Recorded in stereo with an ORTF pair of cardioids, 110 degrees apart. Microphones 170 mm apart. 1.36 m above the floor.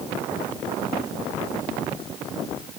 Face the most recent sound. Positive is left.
No sound to turn to.